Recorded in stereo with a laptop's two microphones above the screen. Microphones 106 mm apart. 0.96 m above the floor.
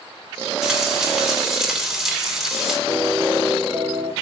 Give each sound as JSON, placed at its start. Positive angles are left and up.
{"t": 0.6, "sound": "frying", "side_deg": 0, "distance_m": 2.5}
{"t": 2.9, "sound": "a piano", "side_deg": -25, "distance_m": 2.5}